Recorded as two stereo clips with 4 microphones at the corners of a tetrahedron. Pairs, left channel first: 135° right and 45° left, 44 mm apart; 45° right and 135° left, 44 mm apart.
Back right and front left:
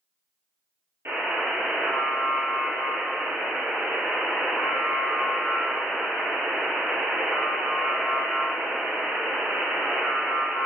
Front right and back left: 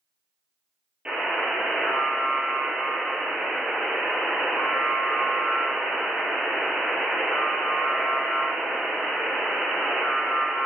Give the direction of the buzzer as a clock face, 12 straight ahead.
10 o'clock.